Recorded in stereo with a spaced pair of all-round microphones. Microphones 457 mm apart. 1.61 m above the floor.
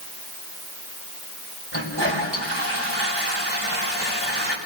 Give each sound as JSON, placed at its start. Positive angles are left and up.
{"t": 1.7, "sound": "a toilet flushing", "side_deg": -65, "distance_m": 5.0}